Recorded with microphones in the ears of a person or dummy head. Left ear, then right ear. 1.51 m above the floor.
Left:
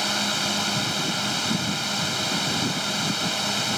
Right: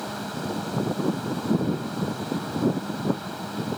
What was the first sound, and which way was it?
A drone, 85° left.